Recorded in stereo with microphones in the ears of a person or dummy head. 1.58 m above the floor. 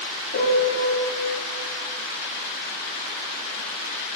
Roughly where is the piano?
Left.